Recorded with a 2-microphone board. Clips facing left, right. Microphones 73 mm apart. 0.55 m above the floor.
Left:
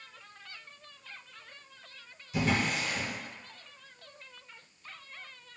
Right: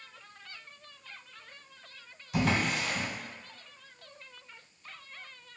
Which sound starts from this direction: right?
A drawer, at 2.3 s.